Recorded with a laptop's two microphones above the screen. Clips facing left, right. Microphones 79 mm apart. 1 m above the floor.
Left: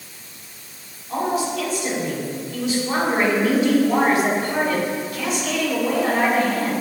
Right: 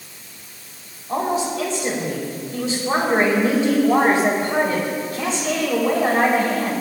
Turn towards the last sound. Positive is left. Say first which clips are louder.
# right 1 dB
turn(degrees=-30)  # may be behind; listen again after turning